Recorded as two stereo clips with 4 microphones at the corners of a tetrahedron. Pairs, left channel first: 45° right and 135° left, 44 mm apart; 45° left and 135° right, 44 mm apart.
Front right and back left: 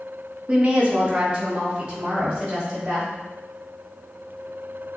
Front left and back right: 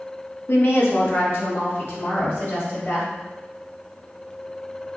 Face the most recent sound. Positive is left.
turn(degrees=70)